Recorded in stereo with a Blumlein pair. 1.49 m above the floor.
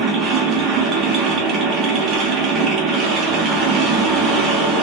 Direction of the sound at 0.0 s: 25° right.